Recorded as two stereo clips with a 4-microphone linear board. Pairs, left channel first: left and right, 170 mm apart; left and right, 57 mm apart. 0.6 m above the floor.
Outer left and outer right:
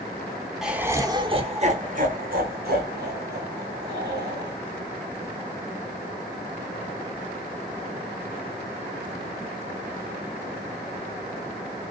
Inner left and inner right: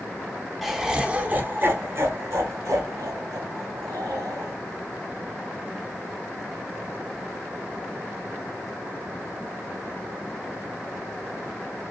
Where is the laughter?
5° right (ahead or behind), 1.3 m; by 4.5 s 80° right, 4 m.